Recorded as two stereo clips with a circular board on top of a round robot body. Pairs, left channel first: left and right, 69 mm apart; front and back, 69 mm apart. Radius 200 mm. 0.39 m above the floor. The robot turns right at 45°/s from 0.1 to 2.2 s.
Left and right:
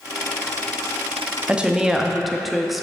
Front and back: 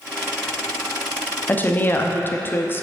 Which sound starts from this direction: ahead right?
A woman speaking, at 1.5 s.